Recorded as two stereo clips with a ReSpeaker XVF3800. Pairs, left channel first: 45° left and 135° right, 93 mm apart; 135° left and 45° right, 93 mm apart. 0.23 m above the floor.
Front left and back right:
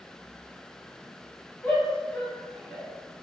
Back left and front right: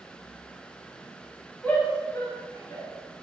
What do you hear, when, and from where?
1.6 s a shout: 100° left, 1.0 m; by 2.9 s 130° left, 1.4 m